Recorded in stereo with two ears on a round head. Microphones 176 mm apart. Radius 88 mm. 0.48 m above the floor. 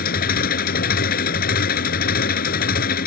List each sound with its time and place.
0.0 s an engine running: 45° left (ahead or behind)